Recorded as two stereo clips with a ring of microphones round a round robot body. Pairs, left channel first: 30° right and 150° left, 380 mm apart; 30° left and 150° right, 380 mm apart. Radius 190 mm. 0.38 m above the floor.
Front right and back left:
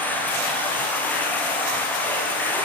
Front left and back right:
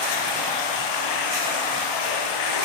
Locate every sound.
0.0 s running water: 55° left, 7.5 m